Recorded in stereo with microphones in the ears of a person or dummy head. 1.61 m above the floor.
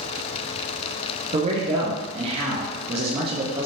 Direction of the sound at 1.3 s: 35° right (ahead or behind).